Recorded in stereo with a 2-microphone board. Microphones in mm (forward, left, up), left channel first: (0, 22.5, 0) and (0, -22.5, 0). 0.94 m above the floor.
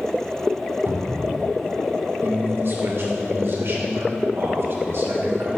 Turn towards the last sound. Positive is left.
turn(degrees=-60)  # may be behind; listen again after turning